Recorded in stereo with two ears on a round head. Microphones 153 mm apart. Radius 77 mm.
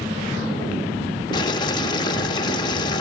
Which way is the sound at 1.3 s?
25° left (ahead or behind).